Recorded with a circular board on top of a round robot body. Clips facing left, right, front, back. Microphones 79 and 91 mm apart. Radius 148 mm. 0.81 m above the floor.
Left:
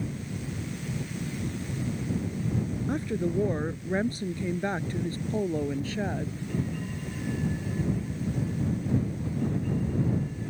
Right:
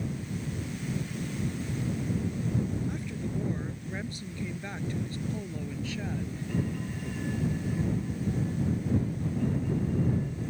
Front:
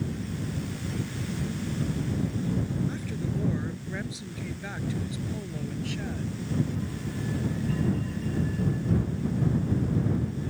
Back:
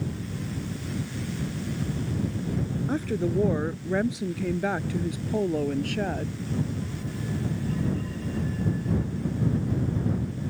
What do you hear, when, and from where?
2.9 s a woman speaking: 140° left